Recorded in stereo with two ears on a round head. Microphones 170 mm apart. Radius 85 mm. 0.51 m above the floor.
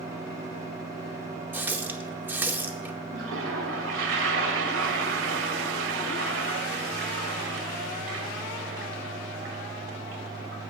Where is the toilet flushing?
70° right (ahead or behind), 1.8 m.